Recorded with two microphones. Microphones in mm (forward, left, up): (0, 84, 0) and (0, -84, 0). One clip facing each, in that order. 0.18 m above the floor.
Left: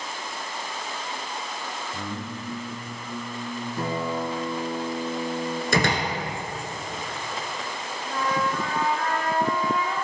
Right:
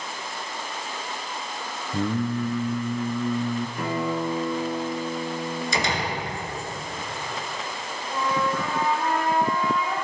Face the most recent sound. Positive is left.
turn(degrees=65)  # may be behind; listen again after turning